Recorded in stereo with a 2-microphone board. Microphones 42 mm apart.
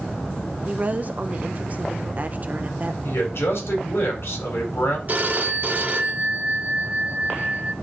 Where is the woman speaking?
40° right (ahead or behind), 0.7 m.